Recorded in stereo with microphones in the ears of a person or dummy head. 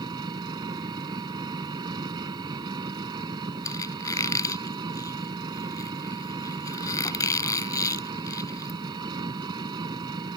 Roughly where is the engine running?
Right.